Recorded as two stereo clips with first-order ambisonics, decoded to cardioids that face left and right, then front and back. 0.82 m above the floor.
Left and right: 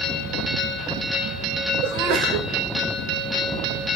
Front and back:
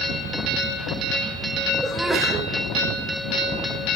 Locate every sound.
1.8 s a sneeze: 95° right, 4.5 m